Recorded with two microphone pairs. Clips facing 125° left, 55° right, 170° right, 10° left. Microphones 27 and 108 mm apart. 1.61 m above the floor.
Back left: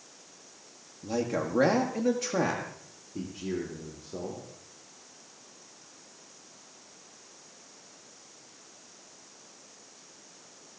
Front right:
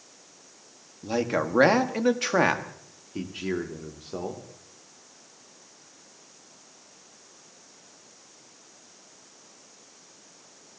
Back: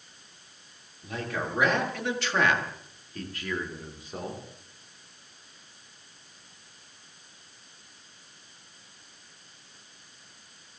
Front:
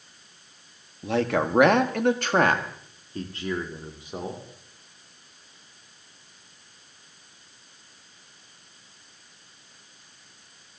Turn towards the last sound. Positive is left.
turn(degrees=-65)